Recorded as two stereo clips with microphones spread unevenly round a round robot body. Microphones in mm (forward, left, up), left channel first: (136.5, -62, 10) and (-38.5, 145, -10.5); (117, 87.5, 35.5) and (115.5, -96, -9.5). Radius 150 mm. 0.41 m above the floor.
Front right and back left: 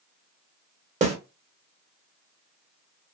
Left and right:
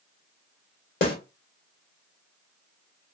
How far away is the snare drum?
About 1.5 m.